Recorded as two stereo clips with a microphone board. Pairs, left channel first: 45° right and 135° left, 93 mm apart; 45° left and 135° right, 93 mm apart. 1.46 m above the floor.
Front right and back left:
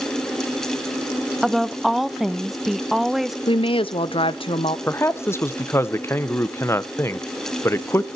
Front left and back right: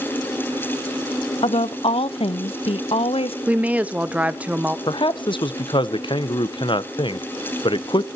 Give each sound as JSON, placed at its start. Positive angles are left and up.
{"t": 1.4, "sound": "a woman speaking", "azimuth_deg": 45, "distance_m": 0.6}
{"t": 3.5, "sound": "a woman speaking", "azimuth_deg": -60, "distance_m": 1.0}
{"t": 4.9, "sound": "a man speaking", "azimuth_deg": 15, "distance_m": 0.8}